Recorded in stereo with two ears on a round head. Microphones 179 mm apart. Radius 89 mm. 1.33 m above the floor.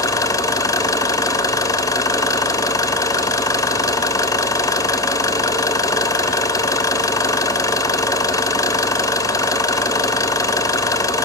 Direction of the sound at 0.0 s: 20° left (ahead or behind).